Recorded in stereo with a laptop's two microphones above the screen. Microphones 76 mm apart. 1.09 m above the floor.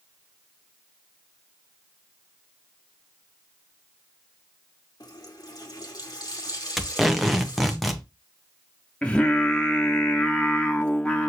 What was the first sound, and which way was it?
A running tap, 55° left (ahead or behind).